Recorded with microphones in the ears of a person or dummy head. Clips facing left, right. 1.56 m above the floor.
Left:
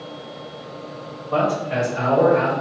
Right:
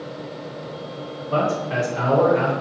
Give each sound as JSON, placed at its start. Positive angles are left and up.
{"t": 1.3, "sound": "a man speaking", "side_deg": -40, "distance_m": 1.6}